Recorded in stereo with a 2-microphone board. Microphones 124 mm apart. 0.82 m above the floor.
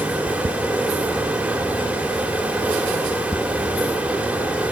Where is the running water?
10° right (ahead or behind), 2.0 m.